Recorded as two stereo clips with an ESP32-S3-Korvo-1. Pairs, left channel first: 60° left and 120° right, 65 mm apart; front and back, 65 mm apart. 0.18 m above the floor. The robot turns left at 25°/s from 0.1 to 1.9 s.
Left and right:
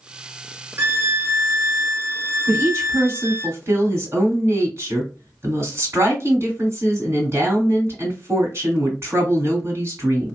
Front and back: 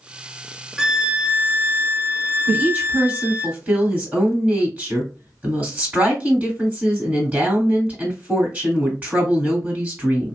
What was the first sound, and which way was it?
A violin, 100° right.